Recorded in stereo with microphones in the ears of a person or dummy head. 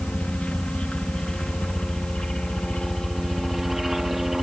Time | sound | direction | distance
0.0 | a helicopter | 5° left (ahead or behind) | ?